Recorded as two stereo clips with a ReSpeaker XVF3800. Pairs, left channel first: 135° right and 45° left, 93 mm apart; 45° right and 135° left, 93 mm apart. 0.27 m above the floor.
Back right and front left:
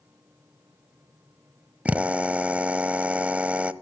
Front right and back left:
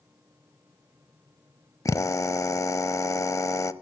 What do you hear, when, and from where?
1.9 s a drill: 20° right, 0.7 m